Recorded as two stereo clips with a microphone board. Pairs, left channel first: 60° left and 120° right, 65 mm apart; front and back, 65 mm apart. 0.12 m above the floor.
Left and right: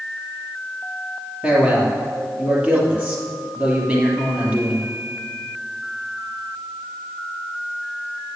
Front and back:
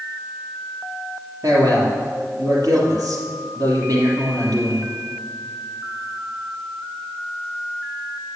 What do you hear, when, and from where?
1.4 s a man speaking: 170° left, 3 m